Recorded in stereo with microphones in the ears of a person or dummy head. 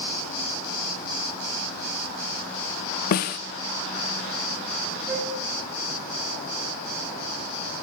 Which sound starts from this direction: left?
A snare drum, at 3.1 s.